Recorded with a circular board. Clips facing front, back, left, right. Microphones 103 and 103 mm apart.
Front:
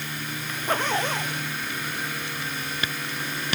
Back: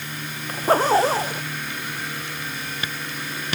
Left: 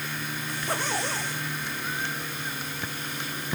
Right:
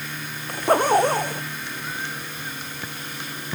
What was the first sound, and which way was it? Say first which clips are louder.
A zipper: back 9 dB, right 13 dB; 125° right.